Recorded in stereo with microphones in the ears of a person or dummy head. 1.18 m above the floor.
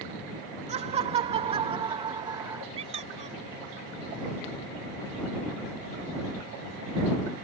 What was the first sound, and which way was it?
Laughter, 45° right (ahead or behind).